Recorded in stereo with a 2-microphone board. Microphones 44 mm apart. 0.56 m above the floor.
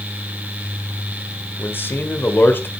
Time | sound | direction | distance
1.6 | a man speaking | 55° left (ahead or behind) | 1.9 m